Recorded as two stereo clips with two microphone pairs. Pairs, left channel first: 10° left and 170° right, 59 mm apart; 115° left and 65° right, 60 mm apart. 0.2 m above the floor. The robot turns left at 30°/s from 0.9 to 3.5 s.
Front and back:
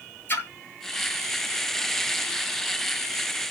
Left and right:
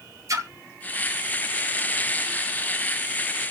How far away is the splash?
About 1.0 m.